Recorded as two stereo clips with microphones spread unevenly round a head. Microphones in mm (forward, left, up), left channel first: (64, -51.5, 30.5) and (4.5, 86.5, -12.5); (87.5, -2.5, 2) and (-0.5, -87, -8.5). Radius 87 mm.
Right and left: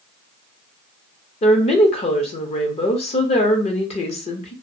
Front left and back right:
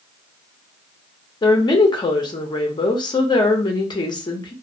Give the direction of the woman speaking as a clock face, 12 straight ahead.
12 o'clock.